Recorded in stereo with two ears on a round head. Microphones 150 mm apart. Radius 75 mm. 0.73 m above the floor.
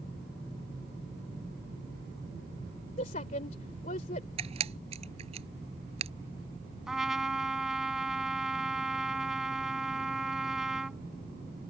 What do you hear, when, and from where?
3.0 s a woman speaking: 45° left (ahead or behind)
4.4 s a camera shutter: 35° right (ahead or behind)
6.9 s a trumpet: centre (ahead or behind)